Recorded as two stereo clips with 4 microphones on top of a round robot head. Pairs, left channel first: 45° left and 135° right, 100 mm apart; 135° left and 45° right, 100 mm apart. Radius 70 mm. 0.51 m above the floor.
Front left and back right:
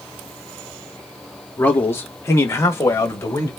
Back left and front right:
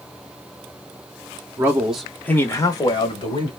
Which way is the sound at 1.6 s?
15° right.